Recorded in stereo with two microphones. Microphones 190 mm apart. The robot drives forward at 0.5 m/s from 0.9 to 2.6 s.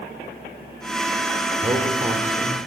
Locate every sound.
1.6 s a man speaking: 25° right (ahead or behind), 5.5 m